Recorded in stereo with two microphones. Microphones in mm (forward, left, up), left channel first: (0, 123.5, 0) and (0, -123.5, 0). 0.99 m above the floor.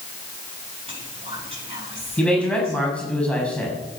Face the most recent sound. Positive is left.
turn(degrees=5)  # may be behind; listen again after turning